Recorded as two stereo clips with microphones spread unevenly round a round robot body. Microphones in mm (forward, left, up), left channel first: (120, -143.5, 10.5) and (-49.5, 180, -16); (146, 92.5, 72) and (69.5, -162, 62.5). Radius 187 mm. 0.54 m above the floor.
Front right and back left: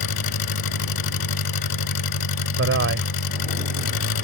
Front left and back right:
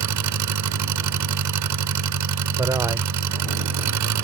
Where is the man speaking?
175° left.